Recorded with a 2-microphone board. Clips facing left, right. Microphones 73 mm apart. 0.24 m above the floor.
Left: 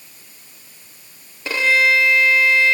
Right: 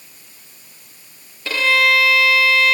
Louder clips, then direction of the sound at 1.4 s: Even; 20° left (ahead or behind).